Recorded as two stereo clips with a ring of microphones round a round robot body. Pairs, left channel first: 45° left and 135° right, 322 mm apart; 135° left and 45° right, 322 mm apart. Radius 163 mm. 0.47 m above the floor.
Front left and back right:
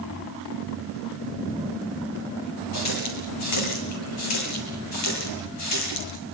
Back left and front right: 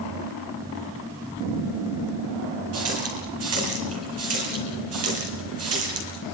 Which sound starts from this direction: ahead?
A running tap, at 2.7 s.